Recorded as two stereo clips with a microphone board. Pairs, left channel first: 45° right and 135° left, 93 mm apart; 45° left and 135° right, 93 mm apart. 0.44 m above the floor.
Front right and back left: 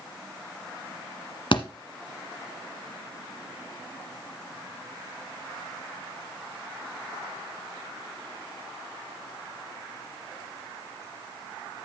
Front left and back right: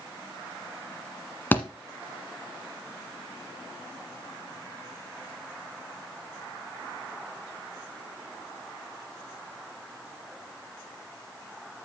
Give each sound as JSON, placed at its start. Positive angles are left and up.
{"t": 1.5, "sound": "a thud", "azimuth_deg": -25, "distance_m": 1.2}